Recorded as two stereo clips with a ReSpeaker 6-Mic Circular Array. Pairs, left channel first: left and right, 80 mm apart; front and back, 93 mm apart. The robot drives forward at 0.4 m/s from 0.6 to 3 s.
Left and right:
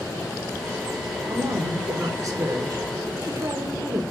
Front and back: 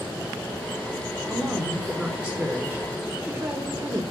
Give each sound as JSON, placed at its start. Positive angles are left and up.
{"t": 1.3, "sound": "a woman speaking", "azimuth_deg": -95, "distance_m": 1.7}